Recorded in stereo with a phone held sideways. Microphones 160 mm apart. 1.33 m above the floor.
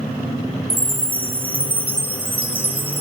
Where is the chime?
35° right (ahead or behind), 0.6 m.